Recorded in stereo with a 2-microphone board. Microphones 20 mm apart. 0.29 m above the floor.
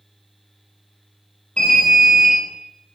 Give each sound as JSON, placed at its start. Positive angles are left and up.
{"t": 1.6, "sound": "an alarm", "side_deg": 80, "distance_m": 5.0}